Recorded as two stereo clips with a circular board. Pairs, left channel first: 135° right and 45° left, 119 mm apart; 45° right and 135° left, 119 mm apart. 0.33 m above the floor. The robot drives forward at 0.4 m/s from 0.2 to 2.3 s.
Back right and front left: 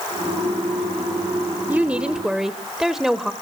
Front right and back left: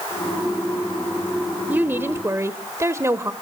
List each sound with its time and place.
1.7 s a woman speaking: 90° left, 1.0 m; by 3.3 s 125° left, 1.0 m